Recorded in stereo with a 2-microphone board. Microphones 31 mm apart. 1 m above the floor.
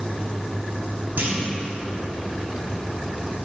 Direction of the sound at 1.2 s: 70° right (ahead or behind).